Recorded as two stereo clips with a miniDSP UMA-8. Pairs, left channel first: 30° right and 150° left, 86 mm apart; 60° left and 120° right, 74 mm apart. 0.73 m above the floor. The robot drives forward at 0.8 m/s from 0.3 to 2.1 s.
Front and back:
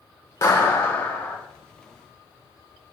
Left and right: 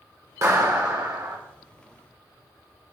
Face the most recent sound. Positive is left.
turn(degrees=-120)